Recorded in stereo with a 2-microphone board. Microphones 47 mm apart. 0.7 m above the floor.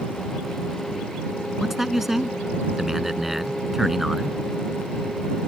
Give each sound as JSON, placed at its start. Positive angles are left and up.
{"t": 1.6, "sound": "a man speaking", "side_deg": -10}